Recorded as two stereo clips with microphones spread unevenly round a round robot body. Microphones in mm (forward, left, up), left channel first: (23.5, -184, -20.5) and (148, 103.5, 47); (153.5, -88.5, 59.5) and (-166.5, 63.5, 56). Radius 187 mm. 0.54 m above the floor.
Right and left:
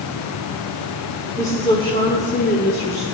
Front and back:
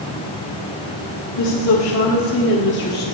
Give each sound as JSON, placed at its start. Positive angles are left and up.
{"t": 1.4, "sound": "a woman speaking", "azimuth_deg": -45, "distance_m": 1.6}